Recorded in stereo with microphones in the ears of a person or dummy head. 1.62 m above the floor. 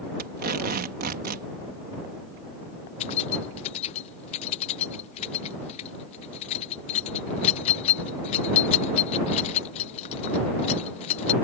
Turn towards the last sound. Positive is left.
turn(degrees=40)  # may be behind; listen again after turning